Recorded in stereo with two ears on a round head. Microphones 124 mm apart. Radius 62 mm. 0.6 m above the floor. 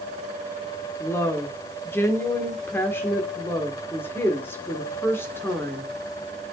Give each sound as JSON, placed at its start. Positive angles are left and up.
{"t": 1.0, "sound": "a woman speaking", "side_deg": 15, "distance_m": 1.6}